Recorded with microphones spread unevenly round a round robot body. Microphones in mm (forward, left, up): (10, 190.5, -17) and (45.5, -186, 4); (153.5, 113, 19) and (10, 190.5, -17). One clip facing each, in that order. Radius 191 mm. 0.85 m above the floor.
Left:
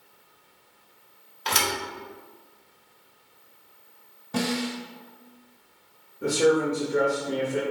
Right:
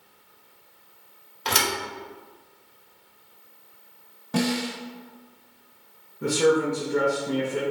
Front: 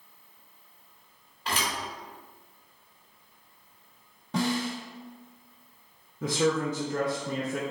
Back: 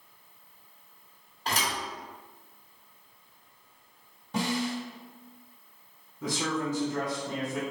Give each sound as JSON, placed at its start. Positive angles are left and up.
{"t": 1.4, "sound": "a thud", "azimuth_deg": -130, "distance_m": 1.1}
{"t": 4.3, "sound": "a snare drum", "azimuth_deg": -65, "distance_m": 1.2}
{"t": 6.2, "sound": "a man speaking", "azimuth_deg": -5, "distance_m": 0.9}